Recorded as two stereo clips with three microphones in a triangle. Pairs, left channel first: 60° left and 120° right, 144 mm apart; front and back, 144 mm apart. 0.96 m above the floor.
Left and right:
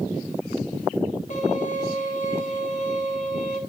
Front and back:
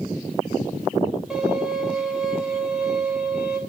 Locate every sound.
1.3 s a violin: 95° left, 3 m